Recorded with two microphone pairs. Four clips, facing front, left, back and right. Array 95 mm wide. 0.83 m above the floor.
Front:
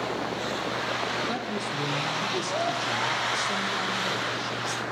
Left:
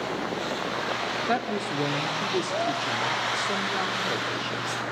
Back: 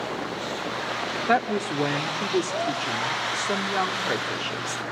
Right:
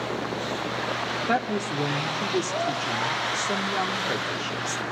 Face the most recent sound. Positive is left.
turn(degrees=-175)